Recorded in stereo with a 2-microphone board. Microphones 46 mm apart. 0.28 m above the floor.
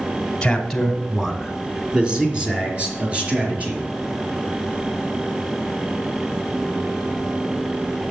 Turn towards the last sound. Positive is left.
turn(degrees=-25)  # may be behind; listen again after turning